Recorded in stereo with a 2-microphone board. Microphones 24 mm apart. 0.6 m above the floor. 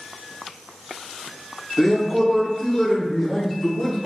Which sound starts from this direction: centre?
A man speaking, at 1.8 s.